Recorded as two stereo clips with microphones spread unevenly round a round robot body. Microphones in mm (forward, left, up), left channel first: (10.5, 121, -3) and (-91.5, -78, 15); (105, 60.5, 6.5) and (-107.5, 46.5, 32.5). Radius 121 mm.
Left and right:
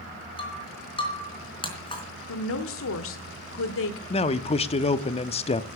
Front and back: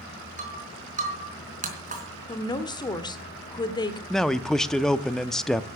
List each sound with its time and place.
0.4 s breaking glass: 130° left, 4 m
2.3 s a woman speaking: 70° left, 1.4 m
4.1 s a man speaking: 75° left, 0.6 m